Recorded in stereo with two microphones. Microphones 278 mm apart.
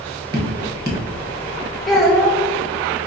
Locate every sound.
0.3 s dripping: 35° right (ahead or behind), 1.0 m
1.9 s a child speaking: centre (ahead or behind), 0.9 m